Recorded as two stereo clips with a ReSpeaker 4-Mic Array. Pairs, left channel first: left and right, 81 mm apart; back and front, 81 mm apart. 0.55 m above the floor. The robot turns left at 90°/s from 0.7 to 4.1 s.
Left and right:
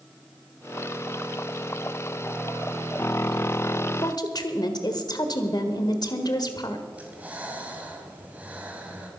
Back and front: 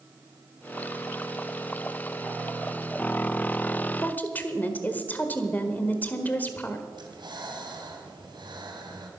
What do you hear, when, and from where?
4.0 s a woman speaking: 120° left, 1.5 m; by 6.8 s 115° left, 1.5 m
6.9 s breathing: 20° right, 2 m